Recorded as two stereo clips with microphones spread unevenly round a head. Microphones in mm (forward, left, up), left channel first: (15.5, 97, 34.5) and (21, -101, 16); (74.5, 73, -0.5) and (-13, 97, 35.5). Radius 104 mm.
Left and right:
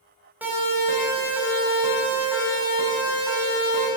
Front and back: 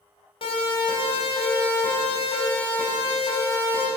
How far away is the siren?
About 8 m.